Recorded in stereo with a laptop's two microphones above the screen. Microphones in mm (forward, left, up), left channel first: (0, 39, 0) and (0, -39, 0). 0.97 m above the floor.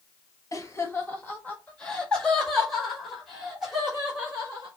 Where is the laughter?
40° left (ahead or behind), 1.2 m; by 4.7 s 10° right (ahead or behind), 3 m.